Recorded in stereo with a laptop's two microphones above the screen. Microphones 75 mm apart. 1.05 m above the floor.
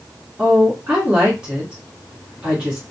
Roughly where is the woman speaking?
Centre.